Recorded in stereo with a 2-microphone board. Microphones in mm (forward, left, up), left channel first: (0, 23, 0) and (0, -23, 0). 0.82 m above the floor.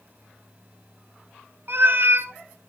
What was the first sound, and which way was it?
A cat meowing, 55° right (ahead or behind).